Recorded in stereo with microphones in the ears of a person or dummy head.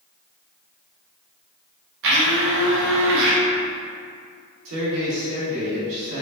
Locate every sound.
2.0 s a blender: 65° right (ahead or behind), 0.7 m
4.7 s a man speaking: 80° right, 1.5 m